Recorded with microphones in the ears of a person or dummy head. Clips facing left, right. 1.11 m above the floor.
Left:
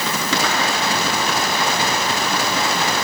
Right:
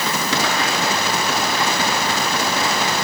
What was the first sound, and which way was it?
Only background noise.